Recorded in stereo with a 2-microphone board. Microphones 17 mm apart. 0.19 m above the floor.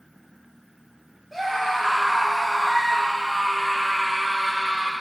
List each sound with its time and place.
1.3 s a scream: centre (ahead or behind), 3 m; by 4.9 s 55° left (ahead or behind), 3.5 m